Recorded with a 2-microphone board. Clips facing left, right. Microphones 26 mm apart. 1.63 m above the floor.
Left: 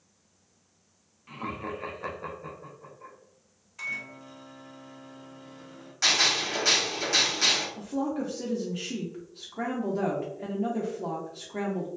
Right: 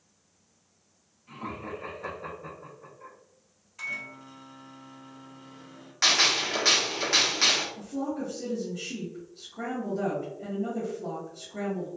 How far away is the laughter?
About 0.8 m.